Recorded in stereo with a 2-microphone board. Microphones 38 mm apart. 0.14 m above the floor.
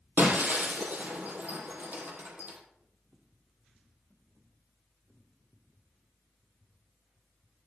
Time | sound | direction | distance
0.2 | breaking glass | 50° right (ahead or behind) | 3.5 m